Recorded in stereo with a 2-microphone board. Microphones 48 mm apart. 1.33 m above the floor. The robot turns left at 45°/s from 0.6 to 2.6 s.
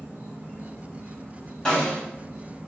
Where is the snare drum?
15° left (ahead or behind), 1.7 m; by 2.0 s 30° left (ahead or behind), 1.7 m.